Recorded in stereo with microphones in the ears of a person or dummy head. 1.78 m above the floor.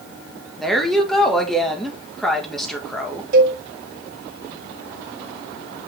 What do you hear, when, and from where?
0.6 s a woman speaking: centre (ahead or behind), 2 m
3.3 s a cowbell: 55° right (ahead or behind), 3 m